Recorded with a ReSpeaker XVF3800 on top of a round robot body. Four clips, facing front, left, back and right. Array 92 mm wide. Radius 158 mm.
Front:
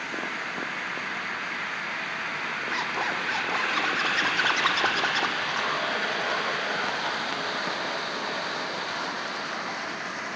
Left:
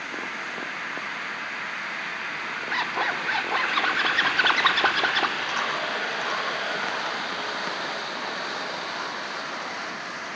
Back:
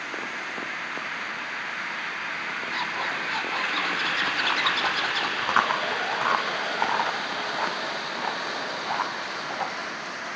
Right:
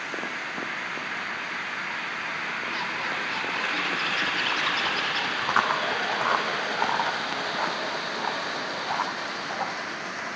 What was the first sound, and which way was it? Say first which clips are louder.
A zipper: left 8 dB, front 1 dB; 70° left.